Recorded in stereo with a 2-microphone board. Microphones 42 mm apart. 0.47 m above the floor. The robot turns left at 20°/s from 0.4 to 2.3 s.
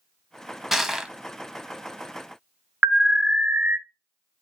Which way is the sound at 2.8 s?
35° right (ahead or behind).